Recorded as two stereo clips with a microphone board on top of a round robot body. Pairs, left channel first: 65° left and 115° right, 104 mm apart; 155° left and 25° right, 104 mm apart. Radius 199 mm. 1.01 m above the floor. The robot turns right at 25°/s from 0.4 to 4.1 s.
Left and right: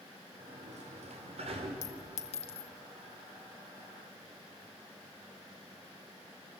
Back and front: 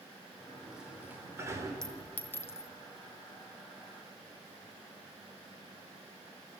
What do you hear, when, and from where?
0.4 s a sliding door: 115° right, 3.5 m; by 1.7 s 80° right, 3.5 m
1.8 s a clink: 70° left, 1.3 m; by 2.7 s 95° left, 1.3 m